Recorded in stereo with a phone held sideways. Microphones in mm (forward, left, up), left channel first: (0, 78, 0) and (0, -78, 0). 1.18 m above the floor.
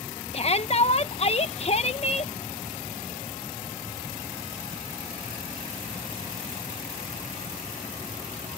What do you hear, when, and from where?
0.3 s a shout: 40° left (ahead or behind)